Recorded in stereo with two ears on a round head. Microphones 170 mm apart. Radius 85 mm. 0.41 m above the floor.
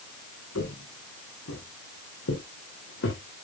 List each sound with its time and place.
0.6 s footsteps: 85° left, 4 m; by 3.2 s 70° left (ahead or behind), 4 m